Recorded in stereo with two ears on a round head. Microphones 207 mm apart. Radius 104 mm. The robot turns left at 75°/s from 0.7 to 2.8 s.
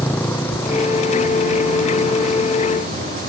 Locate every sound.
0.0 s a motorcycle: 5° left (ahead or behind); by 3.3 s 35° right (ahead or behind)